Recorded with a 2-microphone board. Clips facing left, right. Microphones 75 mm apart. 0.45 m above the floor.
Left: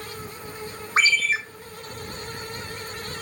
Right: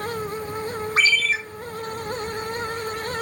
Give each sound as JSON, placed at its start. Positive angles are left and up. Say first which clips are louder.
{"t": 1.0, "sound": "a ringtone", "louder": "even", "side_deg": 25, "distance_m": 0.6}